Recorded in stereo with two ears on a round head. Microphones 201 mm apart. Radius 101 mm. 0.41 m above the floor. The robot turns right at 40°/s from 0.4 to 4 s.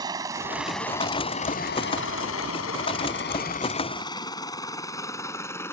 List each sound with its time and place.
0.0 s a helicopter: 15° right (ahead or behind); by 5.7 s 10° left (ahead or behind)